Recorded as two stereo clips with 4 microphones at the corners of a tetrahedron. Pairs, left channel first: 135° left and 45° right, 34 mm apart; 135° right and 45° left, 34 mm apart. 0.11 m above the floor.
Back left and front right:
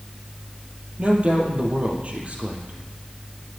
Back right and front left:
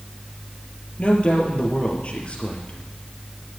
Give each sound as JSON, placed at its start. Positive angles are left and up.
{"t": 1.0, "sound": "a woman speaking", "azimuth_deg": -90, "distance_m": 3.0}